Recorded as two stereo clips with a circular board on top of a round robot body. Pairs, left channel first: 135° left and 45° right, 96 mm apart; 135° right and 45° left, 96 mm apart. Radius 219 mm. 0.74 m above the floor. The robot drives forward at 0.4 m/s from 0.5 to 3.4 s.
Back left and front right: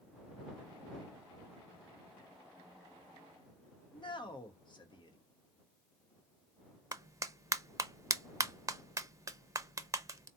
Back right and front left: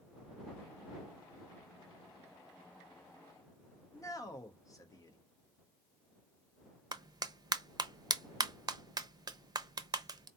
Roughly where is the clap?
Ahead.